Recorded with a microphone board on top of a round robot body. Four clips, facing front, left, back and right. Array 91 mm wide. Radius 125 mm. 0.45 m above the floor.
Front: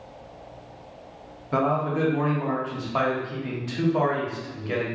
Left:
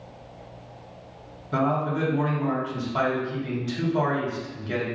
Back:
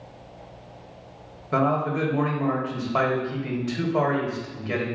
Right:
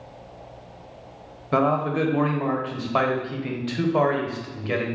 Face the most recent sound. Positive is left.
turn(degrees=-95)